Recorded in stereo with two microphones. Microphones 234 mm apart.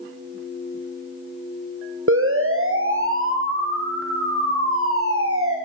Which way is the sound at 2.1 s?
65° right (ahead or behind).